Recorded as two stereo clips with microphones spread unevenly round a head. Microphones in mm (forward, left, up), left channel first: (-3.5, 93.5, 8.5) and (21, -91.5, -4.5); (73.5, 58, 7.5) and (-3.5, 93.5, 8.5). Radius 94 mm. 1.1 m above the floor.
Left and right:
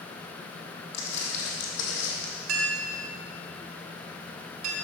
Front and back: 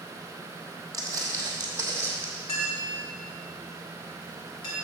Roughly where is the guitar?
I don't hear a guitar.